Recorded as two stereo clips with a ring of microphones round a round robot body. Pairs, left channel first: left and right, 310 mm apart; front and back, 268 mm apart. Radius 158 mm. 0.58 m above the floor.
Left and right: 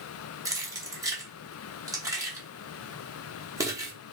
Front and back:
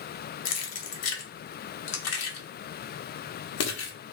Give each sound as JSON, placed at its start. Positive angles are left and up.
{"t": 0.5, "sound": "keys jangling", "azimuth_deg": -10, "distance_m": 0.8}